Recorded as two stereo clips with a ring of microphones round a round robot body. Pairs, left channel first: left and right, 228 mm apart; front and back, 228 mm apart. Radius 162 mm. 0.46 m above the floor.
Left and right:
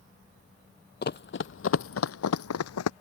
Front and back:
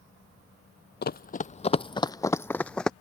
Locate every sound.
1.0 s running footsteps: 45° left; by 2.9 s 85° left